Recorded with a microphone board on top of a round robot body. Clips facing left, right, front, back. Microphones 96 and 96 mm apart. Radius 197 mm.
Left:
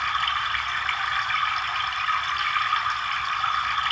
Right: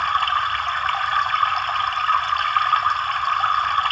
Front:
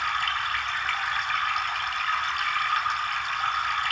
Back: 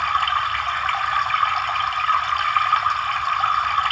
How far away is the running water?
About 2.5 m.